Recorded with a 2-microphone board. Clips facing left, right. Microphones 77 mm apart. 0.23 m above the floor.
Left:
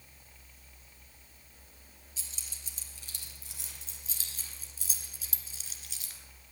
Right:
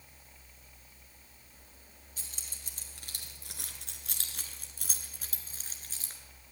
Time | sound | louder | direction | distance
2.2 | keys jangling | right 1 dB | 55° right (ahead or behind) | 3 m